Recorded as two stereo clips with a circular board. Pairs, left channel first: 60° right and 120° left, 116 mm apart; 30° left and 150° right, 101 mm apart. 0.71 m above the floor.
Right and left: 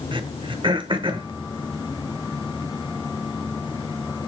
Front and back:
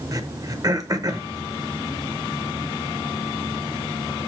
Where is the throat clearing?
160° left, 0.7 m.